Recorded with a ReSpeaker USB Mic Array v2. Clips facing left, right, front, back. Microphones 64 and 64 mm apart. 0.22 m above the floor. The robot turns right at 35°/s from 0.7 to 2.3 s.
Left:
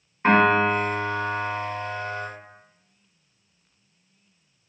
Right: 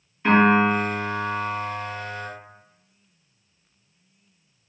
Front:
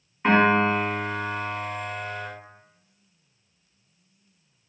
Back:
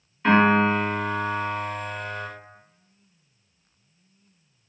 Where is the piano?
55° left, 1.3 m; by 2.3 s 110° left, 1.3 m.